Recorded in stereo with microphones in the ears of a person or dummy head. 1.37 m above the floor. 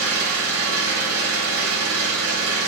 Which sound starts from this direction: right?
An engine running, at 0.0 s.